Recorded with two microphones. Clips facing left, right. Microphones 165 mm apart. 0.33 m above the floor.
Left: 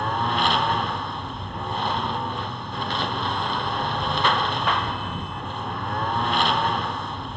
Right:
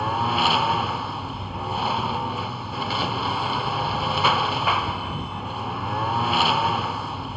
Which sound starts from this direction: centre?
A lawn mower, at 0.0 s.